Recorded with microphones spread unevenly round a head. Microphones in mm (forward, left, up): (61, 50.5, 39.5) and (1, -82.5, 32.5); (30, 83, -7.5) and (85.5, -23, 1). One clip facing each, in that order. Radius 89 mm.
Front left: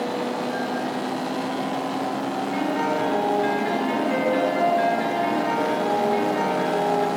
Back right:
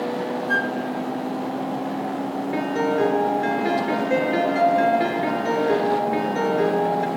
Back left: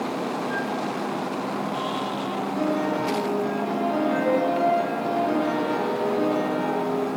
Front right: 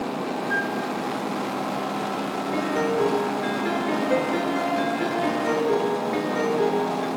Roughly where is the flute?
Behind right.